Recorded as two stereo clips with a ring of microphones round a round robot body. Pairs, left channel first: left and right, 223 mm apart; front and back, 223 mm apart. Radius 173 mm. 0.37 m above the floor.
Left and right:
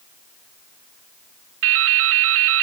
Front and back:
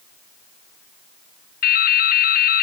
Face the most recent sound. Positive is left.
turn(degrees=-55)